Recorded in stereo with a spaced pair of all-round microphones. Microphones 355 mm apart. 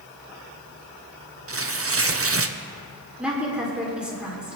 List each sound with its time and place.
1.5 s tearing paper: 40° right (ahead or behind), 0.6 m
3.2 s a woman speaking: 5° right (ahead or behind), 4 m